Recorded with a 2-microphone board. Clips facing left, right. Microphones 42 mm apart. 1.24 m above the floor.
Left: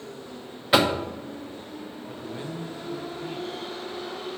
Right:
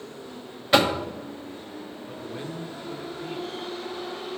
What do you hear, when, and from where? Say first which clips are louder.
0.7 s knocking: even; 5° left (ahead or behind), 0.8 m
2.1 s a man speaking: even; centre (ahead or behind), 1.1 m